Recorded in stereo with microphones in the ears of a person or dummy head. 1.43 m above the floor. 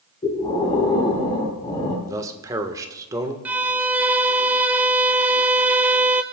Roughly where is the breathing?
Left.